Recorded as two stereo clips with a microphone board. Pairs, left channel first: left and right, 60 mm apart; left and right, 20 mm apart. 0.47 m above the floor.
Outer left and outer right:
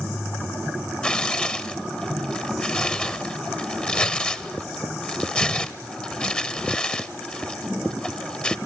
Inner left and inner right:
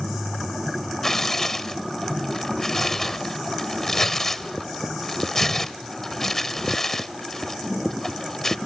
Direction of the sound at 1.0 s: 20° left (ahead or behind).